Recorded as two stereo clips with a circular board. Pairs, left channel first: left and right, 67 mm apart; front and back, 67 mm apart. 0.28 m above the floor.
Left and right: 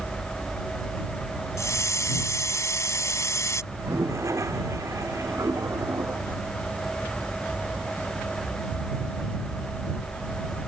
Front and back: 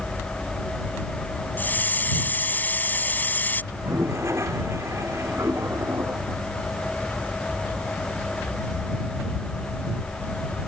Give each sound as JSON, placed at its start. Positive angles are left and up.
{"t": 1.6, "sound": "a hiss", "azimuth_deg": 60}
{"t": 3.7, "sound": "a toilet flushing", "azimuth_deg": -135}